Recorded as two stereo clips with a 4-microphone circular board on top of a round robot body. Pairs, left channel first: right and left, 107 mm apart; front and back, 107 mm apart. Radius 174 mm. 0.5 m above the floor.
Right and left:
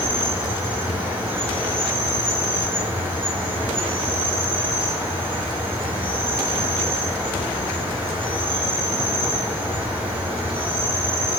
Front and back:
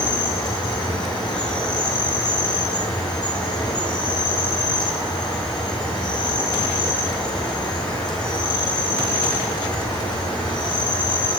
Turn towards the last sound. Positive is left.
turn(degrees=20)